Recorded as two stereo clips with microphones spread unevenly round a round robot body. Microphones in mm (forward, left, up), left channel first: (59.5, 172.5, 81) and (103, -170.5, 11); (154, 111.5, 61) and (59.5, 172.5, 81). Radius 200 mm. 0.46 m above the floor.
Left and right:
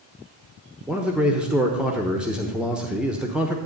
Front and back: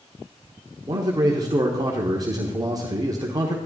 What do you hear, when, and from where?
0.9 s a man speaking: 155° right, 1.0 m